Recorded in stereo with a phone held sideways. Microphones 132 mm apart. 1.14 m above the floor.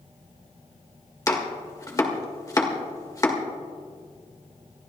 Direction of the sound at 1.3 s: 25° left (ahead or behind).